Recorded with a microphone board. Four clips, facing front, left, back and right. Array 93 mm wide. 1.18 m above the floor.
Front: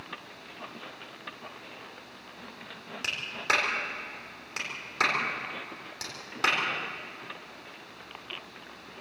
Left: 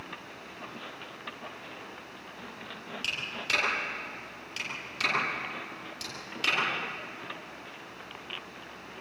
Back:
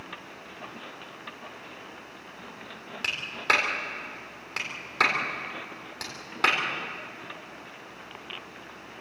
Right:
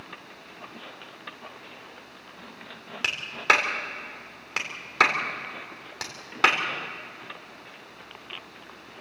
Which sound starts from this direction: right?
A clap, at 3.0 s.